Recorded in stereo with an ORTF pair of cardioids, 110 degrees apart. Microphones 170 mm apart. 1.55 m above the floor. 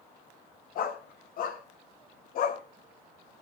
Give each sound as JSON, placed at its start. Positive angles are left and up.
{"t": 0.8, "sound": "a dog barking", "azimuth_deg": 60, "distance_m": 4.0}